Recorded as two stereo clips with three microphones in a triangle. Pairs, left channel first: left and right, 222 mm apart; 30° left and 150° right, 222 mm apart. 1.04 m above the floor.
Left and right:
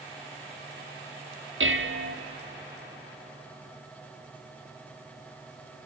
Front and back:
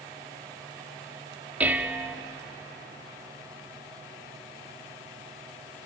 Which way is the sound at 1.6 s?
65° right.